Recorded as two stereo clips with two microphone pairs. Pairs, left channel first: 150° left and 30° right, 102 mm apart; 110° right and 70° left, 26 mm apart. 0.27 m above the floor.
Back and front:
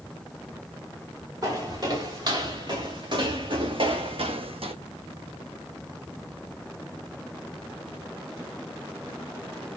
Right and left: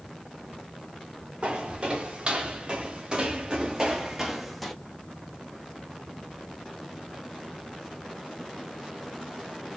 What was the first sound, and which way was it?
Footsteps, 25° left.